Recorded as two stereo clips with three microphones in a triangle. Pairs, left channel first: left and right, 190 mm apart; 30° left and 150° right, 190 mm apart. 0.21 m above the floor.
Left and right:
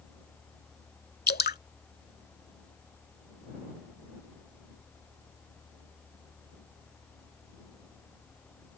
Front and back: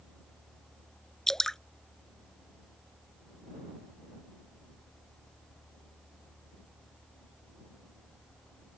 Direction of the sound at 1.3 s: 120° left.